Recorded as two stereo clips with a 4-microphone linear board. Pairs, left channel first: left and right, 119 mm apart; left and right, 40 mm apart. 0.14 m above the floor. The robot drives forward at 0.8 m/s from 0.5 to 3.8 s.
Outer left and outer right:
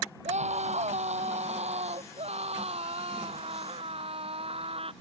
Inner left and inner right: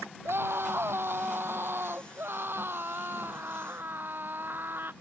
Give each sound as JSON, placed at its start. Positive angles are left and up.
{"t": 0.2, "sound": "a scream", "side_deg": -70}